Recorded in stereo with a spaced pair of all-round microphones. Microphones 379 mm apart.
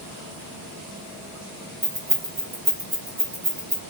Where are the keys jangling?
60° right (ahead or behind), 1.2 m.